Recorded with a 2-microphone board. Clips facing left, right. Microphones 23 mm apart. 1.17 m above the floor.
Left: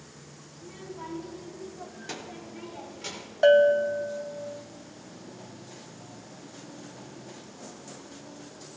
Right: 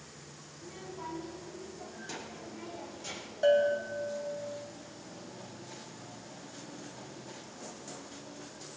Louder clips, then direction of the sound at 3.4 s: Left 7 dB; 35° left (ahead or behind).